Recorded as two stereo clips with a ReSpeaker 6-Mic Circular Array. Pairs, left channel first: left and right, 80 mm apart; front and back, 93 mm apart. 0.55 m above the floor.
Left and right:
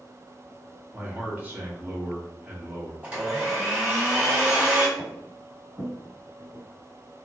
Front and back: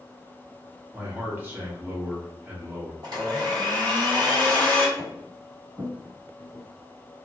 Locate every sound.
0.9 s a man speaking: 135° right, 1.0 m
3.0 s a blender: 155° right, 2.0 m
5.0 s footsteps: 170° right, 1.9 m; by 7.2 s 125° right, 1.8 m